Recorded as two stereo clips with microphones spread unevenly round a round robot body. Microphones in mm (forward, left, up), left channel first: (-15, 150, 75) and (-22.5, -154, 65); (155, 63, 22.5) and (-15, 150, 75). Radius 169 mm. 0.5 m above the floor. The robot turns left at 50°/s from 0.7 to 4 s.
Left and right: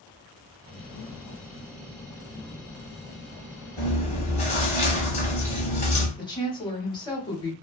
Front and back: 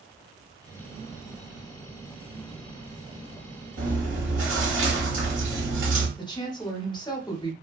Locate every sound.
3.8 s chewing: 170° left, 1.2 m; by 6.1 s 155° left, 1.2 m
6.2 s a woman speaking: 15° left, 1.2 m